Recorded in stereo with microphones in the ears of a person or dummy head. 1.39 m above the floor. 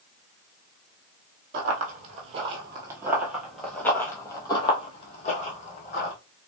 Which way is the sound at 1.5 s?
45° right (ahead or behind).